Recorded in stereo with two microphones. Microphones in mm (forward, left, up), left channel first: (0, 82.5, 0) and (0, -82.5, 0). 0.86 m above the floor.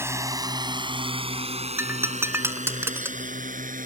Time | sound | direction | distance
0.0 | a drone | 15° right (ahead or behind) | ?
1.8 | breaking glass | 15° right (ahead or behind) | ?